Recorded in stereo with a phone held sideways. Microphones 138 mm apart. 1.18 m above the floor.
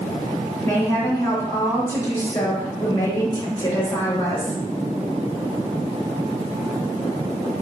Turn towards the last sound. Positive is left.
turn(degrees=25)  # may be behind; listen again after turning